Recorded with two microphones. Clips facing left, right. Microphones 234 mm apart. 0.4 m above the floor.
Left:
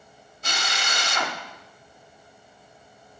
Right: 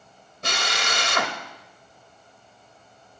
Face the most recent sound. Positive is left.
turn(degrees=-65)  # may be behind; listen again after turning